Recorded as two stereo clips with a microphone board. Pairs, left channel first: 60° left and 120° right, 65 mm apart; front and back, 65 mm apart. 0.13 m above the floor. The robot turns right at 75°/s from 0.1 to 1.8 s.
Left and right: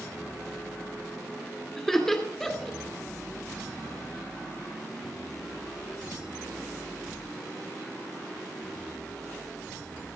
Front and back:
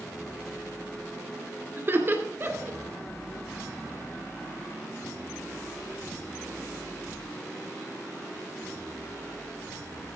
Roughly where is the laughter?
Behind left.